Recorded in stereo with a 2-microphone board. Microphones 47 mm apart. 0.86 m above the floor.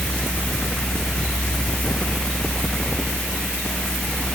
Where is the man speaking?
No man speaking in this recording.